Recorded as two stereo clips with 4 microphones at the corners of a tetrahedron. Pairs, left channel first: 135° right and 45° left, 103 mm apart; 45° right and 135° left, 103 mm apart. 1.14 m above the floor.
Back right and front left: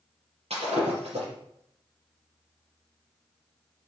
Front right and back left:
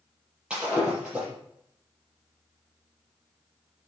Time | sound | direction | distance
0.5 | breaking glass | 55° left | 6 m